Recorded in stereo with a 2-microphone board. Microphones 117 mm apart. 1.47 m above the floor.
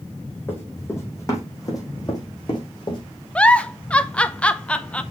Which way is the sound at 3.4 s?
10° left (ahead or behind).